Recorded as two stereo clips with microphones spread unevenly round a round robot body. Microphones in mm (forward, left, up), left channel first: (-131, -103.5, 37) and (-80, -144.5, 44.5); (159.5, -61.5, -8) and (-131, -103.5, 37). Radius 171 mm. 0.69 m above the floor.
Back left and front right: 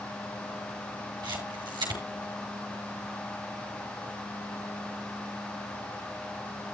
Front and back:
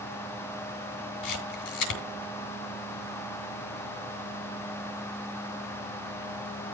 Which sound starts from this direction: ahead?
A camera shutter, at 1.2 s.